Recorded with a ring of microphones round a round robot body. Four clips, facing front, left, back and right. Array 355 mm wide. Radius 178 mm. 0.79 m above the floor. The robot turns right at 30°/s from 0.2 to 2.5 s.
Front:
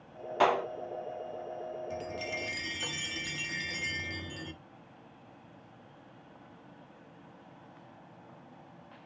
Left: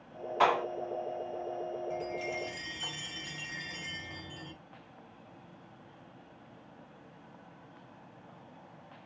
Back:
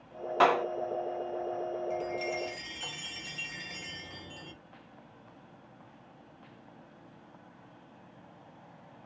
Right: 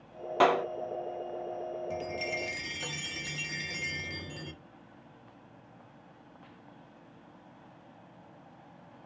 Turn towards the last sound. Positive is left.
turn(degrees=-50)